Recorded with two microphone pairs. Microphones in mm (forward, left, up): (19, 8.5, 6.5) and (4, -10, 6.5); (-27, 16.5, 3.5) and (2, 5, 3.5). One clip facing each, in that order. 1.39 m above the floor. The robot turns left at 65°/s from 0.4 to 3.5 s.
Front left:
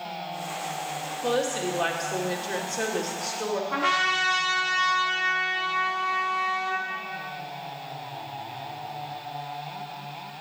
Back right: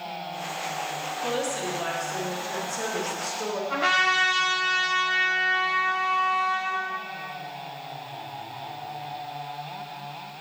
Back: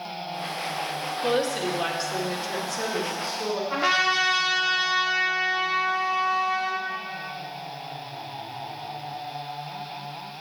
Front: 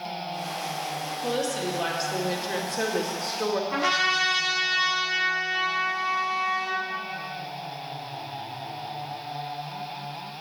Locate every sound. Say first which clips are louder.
1.2 s a woman speaking: front left 3 dB, back 4 dB; 110° left, 2 m; by 3.6 s 35° right, 2 m
3.7 s a trumpet: back right 3 dB, back 3 dB; 135° right, 4.5 m